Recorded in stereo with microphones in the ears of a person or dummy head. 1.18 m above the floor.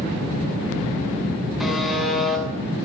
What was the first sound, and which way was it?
A buzzer, centre (ahead or behind).